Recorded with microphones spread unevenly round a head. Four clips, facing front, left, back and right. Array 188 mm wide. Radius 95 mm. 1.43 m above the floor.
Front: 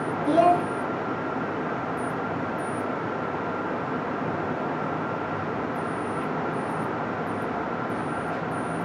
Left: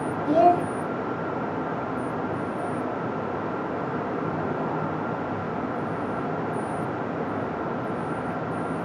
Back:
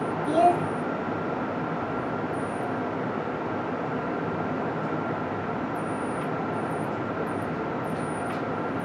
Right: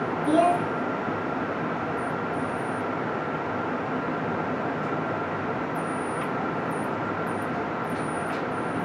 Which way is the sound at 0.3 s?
40° right.